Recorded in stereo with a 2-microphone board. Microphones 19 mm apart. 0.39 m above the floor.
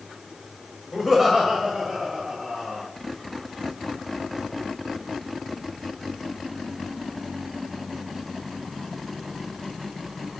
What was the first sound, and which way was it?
Laughter, 10° right (ahead or behind).